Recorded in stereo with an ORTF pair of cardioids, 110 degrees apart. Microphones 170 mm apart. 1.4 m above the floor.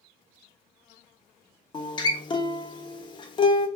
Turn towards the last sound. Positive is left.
turn(degrees=30)